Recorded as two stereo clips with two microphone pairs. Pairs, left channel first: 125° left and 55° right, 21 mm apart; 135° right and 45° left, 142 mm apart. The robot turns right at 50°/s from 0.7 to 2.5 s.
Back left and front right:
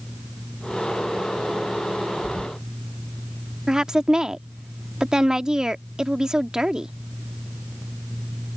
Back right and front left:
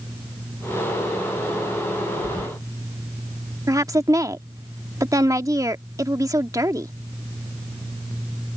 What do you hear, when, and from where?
2.2 s keys jangling: 105° left; by 2.5 s 120° left
3.7 s a woman speaking: 10° right